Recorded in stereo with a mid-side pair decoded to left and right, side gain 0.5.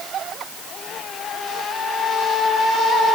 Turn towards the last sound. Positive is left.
No sound to turn to.